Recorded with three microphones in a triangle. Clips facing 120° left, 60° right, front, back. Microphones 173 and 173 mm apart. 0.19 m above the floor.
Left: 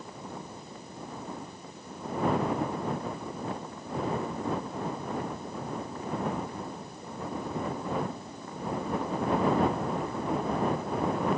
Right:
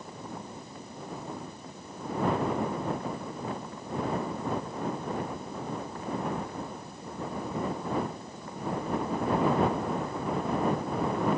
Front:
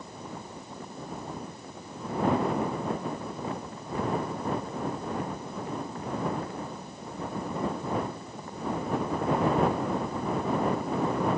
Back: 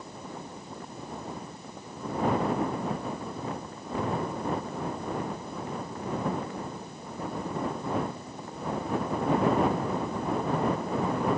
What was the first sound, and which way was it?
Only background noise.